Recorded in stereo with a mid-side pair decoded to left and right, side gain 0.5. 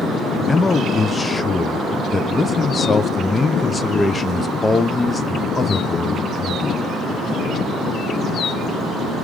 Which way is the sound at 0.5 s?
25° left.